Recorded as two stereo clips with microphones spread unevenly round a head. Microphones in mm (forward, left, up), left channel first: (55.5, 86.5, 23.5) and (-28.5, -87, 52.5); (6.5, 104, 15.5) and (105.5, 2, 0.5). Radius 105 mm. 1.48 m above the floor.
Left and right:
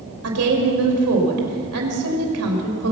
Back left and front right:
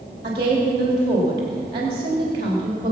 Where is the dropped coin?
I don't hear a dropped coin.